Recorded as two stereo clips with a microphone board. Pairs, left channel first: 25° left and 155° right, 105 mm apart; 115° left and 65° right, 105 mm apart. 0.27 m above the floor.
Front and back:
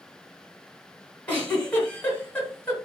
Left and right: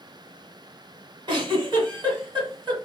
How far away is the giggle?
About 1.8 m.